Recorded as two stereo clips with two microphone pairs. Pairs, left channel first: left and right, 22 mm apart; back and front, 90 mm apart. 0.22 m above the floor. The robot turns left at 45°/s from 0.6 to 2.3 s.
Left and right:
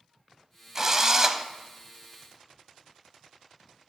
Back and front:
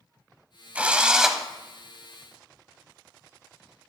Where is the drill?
55° right, 0.5 m; by 1.4 s 85° right, 0.5 m.